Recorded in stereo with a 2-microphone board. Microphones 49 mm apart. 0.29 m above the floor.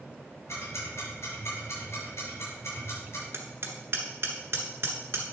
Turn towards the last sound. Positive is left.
turn(degrees=-60)  # may be behind; listen again after turning